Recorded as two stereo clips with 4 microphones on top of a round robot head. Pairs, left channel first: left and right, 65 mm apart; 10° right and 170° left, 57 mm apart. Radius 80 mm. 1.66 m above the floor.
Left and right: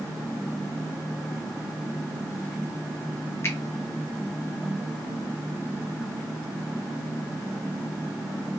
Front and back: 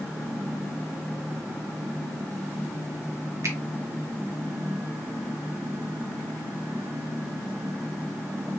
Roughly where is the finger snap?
Behind left.